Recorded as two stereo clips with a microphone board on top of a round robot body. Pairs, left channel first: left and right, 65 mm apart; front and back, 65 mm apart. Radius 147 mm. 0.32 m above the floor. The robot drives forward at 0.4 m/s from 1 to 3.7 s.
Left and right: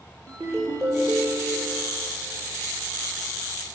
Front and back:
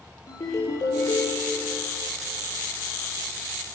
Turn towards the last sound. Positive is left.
turn(degrees=-45)